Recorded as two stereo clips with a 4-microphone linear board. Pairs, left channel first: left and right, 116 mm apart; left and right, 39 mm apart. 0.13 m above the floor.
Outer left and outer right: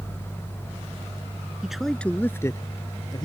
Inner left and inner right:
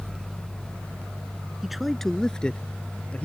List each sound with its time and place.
1.6 s a man speaking: 5° right (ahead or behind); by 3.3 s 40° left (ahead or behind)